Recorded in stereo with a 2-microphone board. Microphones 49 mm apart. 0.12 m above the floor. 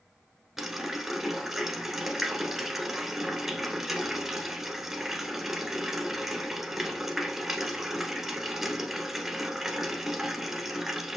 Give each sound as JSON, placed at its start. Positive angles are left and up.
{"t": 0.6, "sound": "a running tap", "side_deg": -5, "distance_m": 1.0}